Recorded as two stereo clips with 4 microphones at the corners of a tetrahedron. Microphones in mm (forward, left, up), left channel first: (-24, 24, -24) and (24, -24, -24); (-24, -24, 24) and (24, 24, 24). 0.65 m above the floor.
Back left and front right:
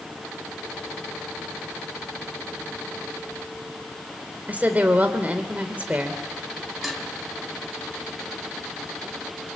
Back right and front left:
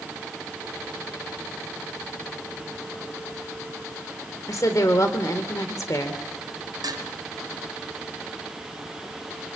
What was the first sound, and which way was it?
A woman speaking, 110° right.